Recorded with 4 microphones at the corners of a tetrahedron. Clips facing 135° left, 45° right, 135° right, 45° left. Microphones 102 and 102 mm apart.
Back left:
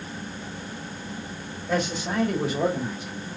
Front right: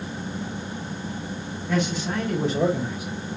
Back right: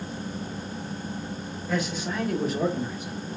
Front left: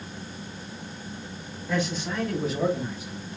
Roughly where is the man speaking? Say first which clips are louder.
Front right 1 dB, front left 1 dB; behind left.